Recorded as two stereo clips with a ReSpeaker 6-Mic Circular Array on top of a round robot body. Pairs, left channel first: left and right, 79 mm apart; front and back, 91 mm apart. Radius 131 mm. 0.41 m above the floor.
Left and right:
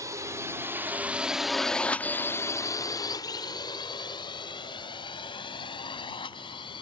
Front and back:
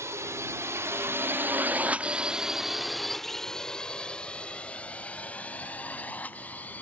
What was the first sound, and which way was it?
A drone, 130° right.